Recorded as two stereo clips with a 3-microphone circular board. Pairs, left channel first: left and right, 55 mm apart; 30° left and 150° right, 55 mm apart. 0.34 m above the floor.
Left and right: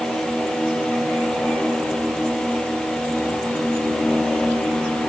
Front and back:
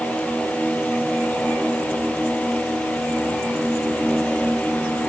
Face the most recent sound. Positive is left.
No sound to turn to.